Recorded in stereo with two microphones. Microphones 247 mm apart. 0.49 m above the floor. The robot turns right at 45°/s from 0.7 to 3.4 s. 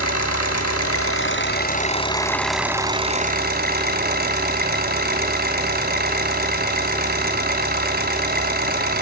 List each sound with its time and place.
0.0 s an engine running: 100° left, 2 m; by 9.0 s 140° right, 2 m